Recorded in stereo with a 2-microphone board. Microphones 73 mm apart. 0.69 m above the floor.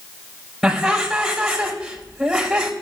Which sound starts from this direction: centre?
Laughter, at 0.6 s.